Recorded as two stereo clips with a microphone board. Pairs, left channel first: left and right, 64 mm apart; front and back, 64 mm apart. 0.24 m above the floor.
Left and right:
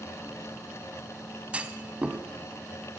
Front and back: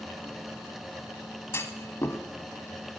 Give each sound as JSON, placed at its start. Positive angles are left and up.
{"t": 1.5, "sound": "a clunk", "azimuth_deg": -25, "distance_m": 1.0}